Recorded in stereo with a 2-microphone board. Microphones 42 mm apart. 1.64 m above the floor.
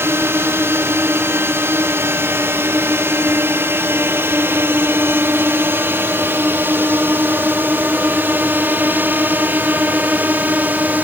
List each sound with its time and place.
0.0 s a drone: 70° right (ahead or behind); by 11.0 s 45° right (ahead or behind)